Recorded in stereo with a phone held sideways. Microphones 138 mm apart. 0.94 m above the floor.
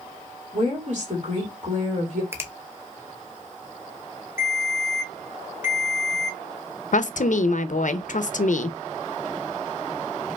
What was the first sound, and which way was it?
A woman speaking, 55° right (ahead or behind).